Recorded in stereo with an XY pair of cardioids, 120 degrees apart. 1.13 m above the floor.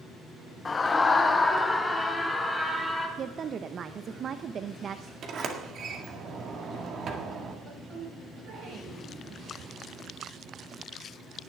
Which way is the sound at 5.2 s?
50° right.